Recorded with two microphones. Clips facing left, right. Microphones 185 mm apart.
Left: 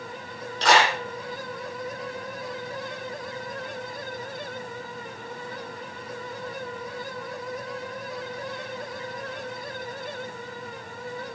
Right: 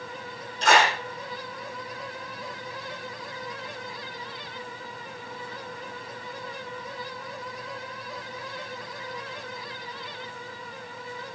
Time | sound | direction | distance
0.6 | a clap | 75° left (ahead or behind) | 4 m